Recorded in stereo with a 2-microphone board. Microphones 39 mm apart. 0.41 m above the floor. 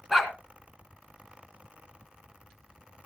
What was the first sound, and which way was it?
A dog barking, 5° right (ahead or behind).